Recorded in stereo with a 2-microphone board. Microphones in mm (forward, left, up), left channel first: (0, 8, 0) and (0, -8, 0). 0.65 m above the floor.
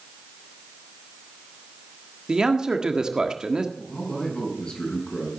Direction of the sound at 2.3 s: 50° right (ahead or behind).